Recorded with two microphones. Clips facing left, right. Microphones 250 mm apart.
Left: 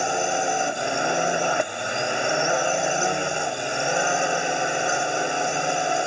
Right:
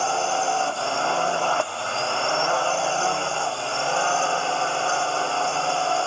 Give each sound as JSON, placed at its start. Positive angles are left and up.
{"t": 0.0, "sound": "a drone", "side_deg": 15}